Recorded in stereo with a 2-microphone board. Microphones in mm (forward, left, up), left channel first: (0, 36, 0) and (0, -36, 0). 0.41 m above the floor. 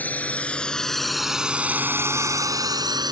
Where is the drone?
25° left (ahead or behind); by 3.1 s 70° right (ahead or behind).